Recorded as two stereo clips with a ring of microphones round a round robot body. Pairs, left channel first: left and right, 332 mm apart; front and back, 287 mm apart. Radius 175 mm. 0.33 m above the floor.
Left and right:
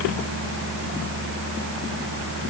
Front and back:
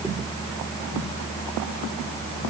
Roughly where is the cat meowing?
I don't hear a cat meowing.